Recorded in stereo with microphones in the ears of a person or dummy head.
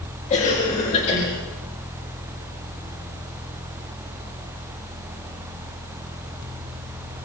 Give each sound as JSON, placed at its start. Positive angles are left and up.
{"t": 0.3, "sound": "a cough", "side_deg": 35, "distance_m": 3.5}